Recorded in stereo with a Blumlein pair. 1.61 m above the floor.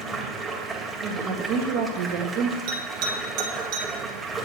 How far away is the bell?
About 2.5 m.